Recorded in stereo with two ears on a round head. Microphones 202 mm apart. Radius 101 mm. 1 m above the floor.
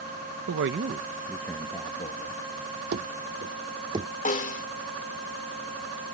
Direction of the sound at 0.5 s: 60° right (ahead or behind).